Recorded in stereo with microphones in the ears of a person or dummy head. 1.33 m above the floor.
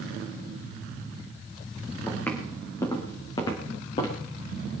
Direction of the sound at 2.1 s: 15° left (ahead or behind).